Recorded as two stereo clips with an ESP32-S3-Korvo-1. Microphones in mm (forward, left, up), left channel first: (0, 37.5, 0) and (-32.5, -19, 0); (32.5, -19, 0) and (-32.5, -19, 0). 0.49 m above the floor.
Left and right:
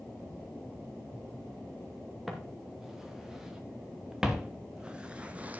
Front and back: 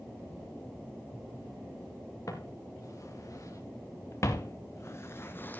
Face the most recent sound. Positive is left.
turn(degrees=-60)